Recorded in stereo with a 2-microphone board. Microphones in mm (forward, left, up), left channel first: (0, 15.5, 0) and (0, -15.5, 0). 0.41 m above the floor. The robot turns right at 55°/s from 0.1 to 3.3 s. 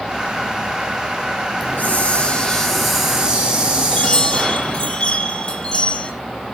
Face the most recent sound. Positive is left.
turn(degrees=25)  # may be behind; listen again after turning